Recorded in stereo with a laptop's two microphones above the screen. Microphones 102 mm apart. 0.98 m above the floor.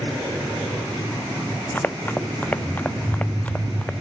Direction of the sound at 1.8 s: 20° left (ahead or behind).